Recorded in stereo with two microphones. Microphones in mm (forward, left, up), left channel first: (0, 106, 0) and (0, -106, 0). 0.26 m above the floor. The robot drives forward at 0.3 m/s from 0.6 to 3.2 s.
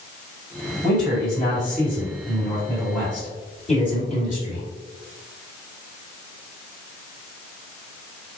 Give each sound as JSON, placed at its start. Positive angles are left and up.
{"t": 0.8, "sound": "a man speaking", "side_deg": 40, "distance_m": 1.8}